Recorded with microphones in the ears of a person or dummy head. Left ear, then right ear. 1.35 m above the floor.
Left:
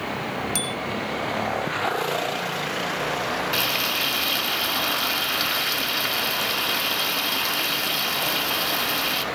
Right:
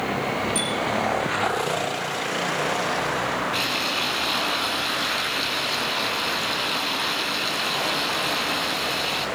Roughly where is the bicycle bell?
Left.